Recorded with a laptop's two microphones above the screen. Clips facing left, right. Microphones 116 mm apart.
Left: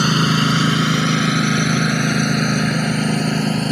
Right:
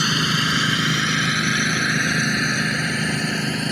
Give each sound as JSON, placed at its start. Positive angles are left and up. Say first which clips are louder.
{"t": 0.0, "sound": "a lawn mower", "louder": "left 6 dB", "side_deg": 45}